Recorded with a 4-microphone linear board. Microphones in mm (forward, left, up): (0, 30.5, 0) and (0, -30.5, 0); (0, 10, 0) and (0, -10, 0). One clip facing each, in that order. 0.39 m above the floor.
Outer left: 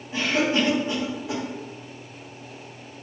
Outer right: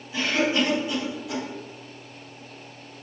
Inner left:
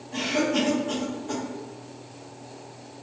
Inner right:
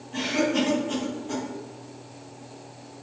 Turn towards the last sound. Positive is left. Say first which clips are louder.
# outer left 1 dB, even
turn(degrees=50)  # may be behind; listen again after turning